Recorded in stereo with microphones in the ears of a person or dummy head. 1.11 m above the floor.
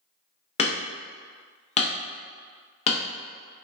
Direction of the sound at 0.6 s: 35° left (ahead or behind).